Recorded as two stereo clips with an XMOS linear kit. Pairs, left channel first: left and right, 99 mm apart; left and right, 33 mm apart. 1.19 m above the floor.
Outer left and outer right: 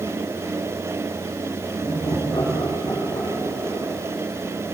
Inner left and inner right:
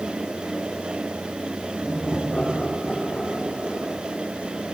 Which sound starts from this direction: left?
Laughter, at 1.8 s.